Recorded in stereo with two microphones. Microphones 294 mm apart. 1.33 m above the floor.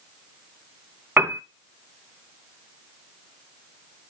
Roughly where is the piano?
Centre.